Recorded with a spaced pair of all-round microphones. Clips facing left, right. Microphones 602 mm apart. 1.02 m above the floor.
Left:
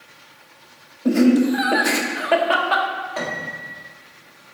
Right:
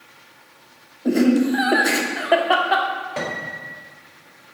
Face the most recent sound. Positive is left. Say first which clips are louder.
# even
turn(degrees=-55)  # may be behind; listen again after turning